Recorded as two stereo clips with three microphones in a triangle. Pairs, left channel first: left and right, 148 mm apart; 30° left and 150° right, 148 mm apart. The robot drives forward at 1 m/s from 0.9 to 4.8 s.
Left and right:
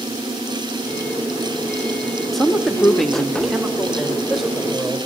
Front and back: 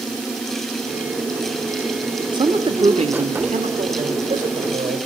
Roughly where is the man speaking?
Behind.